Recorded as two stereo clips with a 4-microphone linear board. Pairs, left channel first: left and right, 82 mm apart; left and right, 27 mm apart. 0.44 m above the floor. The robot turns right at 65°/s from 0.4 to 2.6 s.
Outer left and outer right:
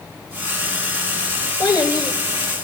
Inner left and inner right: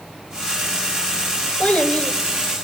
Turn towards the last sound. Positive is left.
turn(degrees=130)